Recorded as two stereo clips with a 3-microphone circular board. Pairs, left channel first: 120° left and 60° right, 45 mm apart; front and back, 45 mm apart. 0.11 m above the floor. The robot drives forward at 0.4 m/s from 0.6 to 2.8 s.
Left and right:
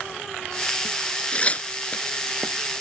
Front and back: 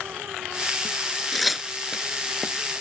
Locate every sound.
1.3 s tearing paper: 85° left, 0.5 m; by 2.0 s 135° left, 0.6 m